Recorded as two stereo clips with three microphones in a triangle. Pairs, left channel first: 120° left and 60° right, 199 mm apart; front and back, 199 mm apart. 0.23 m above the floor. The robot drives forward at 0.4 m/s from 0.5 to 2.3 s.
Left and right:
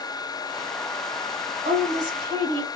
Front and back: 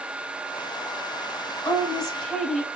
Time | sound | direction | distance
1.6 | a woman speaking | 70° right | 1.4 m